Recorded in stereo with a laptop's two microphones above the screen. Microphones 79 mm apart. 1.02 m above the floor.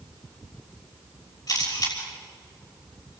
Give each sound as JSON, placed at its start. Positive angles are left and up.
{"t": 1.5, "sound": "a camera shutter", "side_deg": 60, "distance_m": 6.5}